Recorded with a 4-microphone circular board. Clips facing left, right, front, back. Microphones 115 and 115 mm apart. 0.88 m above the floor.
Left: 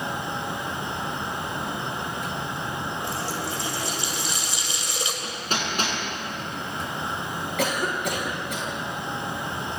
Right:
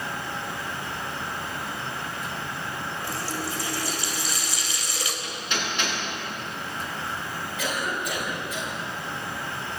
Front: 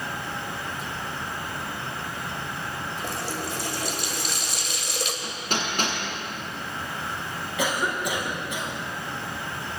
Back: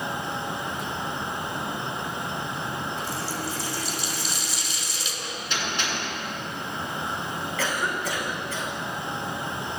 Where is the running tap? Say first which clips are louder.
Left 2 dB, even; 25° left, 3 m.